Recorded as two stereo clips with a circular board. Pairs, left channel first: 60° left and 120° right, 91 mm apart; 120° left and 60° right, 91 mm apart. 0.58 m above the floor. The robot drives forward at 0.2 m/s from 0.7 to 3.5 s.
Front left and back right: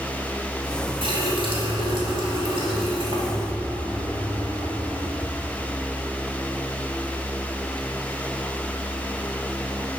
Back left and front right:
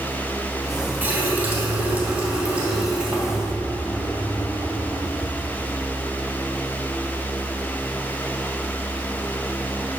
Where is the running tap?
130° right, 1.9 m; by 5.2 s 140° right, 2 m.